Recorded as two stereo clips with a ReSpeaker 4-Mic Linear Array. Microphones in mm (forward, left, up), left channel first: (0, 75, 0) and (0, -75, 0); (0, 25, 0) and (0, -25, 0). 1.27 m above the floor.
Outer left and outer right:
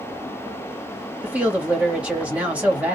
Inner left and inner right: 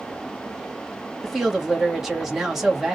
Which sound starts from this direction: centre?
A woman speaking, at 1.2 s.